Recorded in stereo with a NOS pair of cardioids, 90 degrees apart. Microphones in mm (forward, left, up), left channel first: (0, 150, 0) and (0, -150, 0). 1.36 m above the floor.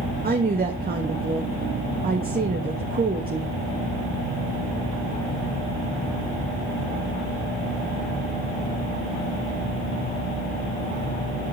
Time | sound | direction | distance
0.2 | a woman speaking | 30° right | 1.6 m